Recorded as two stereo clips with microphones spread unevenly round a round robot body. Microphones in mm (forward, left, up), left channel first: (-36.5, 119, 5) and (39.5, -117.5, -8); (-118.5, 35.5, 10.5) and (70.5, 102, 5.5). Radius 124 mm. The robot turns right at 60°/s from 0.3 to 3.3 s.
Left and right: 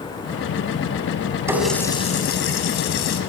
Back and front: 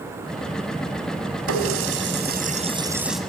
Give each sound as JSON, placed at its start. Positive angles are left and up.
{"t": 1.5, "sound": "a running tap", "azimuth_deg": 5, "distance_m": 4.0}